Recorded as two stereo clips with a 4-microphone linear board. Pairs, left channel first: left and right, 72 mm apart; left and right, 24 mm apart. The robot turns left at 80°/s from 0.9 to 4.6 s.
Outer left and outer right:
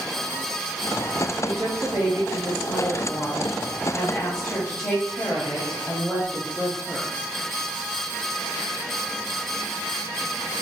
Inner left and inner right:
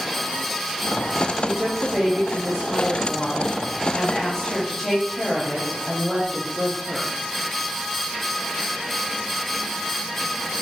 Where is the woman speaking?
60° right, 1.4 m; by 7.1 s 45° left, 1.4 m.